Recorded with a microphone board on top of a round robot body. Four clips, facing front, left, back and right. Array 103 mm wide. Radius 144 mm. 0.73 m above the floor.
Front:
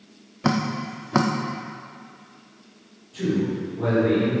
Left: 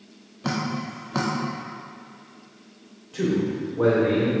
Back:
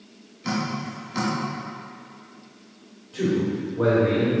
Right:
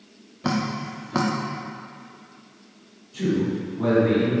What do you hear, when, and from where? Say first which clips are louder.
0.4 s dripping: right 2 dB, front 4 dB; 5° right, 0.6 m
3.1 s a man speaking: even, back 1 dB; 120° left, 2.5 m